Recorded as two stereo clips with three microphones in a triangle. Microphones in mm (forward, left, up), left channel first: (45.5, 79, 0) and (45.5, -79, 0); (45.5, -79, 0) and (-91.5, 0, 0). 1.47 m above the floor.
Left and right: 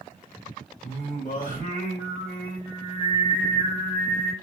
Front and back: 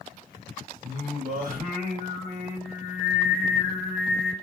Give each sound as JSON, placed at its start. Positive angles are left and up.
{"t": 0.8, "sound": "singing", "azimuth_deg": 120, "distance_m": 1.3}